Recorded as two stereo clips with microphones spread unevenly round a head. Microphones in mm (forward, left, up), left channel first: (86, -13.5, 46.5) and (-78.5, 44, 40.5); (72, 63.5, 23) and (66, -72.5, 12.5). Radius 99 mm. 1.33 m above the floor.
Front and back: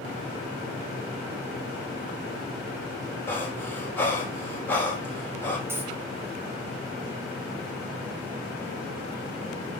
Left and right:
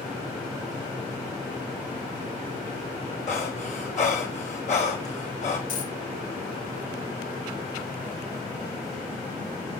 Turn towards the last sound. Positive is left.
turn(degrees=85)